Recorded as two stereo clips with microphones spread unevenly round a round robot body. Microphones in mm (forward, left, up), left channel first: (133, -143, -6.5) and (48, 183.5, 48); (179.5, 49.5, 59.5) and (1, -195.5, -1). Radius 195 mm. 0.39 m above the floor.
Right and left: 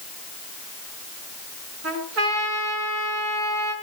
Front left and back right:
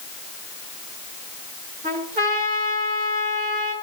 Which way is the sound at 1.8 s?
160° left.